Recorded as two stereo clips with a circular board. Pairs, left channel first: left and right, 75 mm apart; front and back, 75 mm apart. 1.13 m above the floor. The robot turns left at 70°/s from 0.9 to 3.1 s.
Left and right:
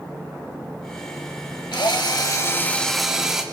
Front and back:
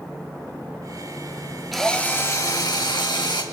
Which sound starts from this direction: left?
A drill, at 1.7 s.